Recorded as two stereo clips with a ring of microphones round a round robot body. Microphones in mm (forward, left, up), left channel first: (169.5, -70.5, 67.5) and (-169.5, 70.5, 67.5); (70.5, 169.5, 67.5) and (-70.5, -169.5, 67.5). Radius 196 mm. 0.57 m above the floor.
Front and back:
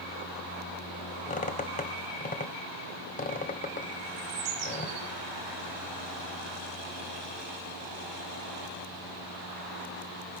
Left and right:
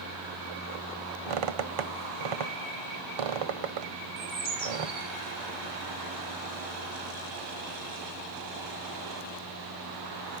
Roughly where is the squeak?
Right.